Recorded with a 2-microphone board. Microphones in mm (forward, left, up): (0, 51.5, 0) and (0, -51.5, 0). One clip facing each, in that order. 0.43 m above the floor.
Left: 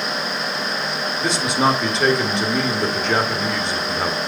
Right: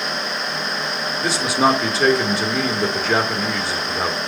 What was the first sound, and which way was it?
A man speaking, centre (ahead or behind).